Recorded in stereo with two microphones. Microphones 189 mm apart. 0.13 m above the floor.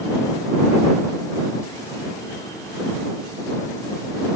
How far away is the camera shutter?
I don't hear a camera shutter.